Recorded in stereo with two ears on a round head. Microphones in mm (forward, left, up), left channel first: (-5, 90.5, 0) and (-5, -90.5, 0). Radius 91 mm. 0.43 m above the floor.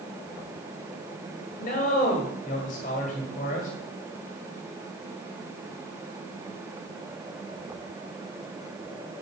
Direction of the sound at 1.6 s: 40° left (ahead or behind).